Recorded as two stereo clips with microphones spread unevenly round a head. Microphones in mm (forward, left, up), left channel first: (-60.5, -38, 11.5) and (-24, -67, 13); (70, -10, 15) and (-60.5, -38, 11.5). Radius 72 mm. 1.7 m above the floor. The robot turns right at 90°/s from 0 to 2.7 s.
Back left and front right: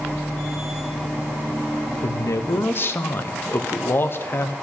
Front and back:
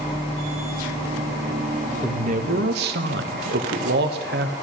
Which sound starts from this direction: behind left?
A man speaking, at 2.0 s.